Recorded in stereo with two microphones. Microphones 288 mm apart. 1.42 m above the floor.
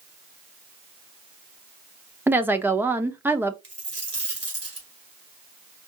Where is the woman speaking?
10° right (ahead or behind), 0.7 m.